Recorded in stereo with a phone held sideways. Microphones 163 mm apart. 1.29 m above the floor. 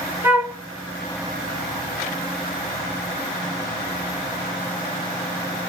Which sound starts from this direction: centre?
A flute, at 0.2 s.